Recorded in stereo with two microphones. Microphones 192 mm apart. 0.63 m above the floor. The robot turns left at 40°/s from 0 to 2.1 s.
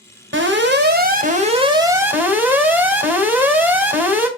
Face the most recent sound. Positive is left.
turn(degrees=-170)